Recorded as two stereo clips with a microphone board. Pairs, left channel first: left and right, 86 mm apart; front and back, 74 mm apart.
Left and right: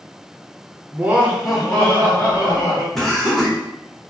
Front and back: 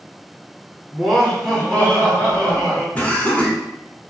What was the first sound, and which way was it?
Laughter, 95° right.